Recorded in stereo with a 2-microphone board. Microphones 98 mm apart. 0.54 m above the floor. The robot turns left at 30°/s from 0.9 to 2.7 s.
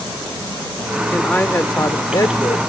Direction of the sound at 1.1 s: 160° left.